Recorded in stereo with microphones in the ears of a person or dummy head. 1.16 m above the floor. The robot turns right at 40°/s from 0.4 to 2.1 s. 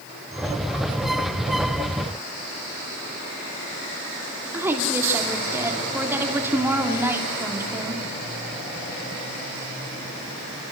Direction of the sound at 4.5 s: 10° right (ahead or behind).